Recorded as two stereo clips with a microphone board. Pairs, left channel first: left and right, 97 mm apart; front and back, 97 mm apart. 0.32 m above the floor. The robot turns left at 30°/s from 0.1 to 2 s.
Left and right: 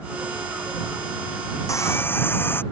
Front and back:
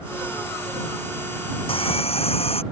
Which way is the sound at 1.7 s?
30° left.